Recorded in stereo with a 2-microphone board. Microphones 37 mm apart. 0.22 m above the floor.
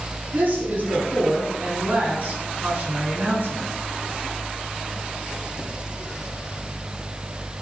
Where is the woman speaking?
55° right (ahead or behind), 1.9 m.